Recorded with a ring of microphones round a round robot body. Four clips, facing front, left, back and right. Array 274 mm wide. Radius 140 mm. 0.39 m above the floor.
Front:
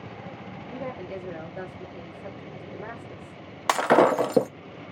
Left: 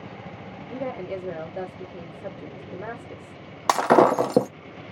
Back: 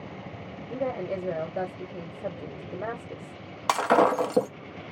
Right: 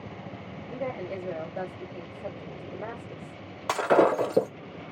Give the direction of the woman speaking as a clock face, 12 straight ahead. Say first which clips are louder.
Left 2 dB, back 6 dB; 7 o'clock.